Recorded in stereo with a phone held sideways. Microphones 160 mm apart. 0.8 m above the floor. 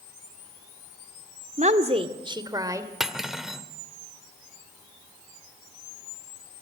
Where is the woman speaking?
50° right (ahead or behind), 1.9 m; by 2.9 s 20° right (ahead or behind), 3 m.